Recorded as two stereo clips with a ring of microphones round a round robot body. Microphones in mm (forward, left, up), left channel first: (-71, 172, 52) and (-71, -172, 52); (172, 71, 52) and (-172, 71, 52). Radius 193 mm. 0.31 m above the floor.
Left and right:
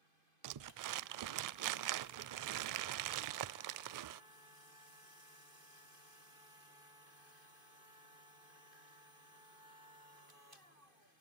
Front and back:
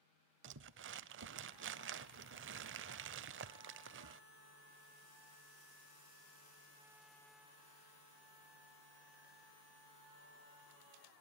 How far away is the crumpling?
About 0.6 m.